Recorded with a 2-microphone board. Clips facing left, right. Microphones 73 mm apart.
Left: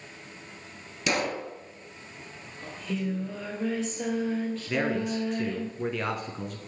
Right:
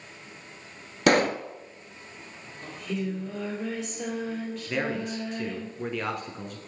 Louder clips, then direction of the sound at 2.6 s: Even; centre (ahead or behind).